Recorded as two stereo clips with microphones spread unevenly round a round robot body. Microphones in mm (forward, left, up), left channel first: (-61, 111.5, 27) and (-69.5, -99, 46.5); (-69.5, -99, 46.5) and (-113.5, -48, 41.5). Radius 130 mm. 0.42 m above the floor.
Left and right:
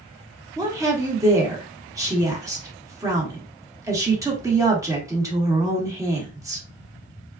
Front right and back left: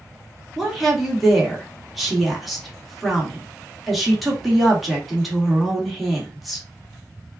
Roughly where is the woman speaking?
Behind right.